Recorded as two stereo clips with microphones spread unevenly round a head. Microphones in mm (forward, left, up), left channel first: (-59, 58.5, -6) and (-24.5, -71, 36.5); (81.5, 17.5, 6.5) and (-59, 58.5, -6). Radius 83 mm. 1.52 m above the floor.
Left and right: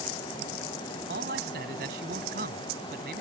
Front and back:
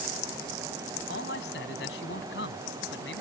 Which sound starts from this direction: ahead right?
A man speaking, at 1.1 s.